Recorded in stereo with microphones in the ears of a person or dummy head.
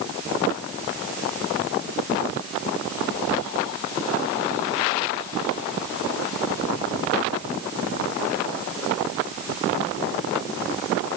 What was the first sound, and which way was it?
Only background noise.